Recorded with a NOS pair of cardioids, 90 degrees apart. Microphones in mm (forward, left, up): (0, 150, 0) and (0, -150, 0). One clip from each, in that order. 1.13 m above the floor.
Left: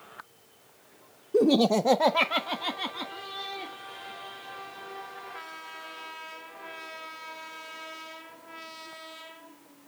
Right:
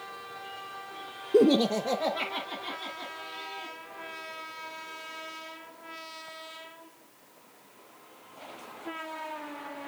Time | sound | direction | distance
1.3 | laughter | 20° right | 0.5 m